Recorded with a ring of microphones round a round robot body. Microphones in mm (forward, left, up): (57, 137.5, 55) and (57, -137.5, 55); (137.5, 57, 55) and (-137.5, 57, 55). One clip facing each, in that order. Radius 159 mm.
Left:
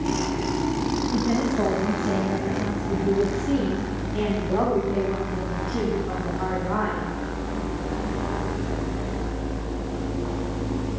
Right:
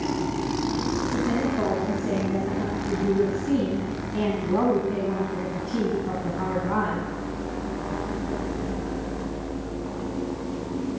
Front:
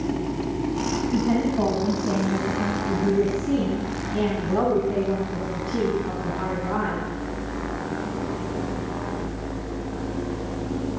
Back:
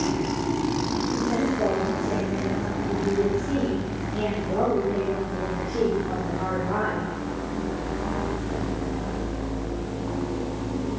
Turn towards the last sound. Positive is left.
turn(degrees=-55)